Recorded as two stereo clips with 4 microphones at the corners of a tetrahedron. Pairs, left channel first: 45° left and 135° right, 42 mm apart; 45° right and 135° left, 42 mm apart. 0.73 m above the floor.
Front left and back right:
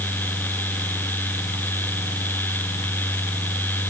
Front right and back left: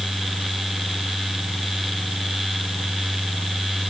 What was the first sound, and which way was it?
Only background noise.